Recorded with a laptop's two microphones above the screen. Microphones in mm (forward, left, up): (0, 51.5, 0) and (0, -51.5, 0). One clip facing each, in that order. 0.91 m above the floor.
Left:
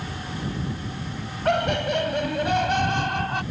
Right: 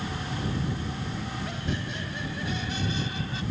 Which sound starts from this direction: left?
Laughter, at 1.4 s.